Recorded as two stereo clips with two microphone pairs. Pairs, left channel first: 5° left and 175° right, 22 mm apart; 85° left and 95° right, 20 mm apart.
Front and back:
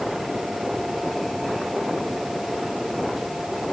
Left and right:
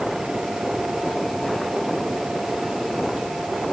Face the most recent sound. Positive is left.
No sound to turn to.